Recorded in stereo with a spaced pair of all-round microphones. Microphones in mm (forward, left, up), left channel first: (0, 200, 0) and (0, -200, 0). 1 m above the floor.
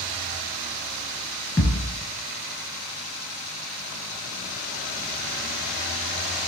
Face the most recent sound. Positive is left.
turn(degrees=5)  # may be behind; listen again after turning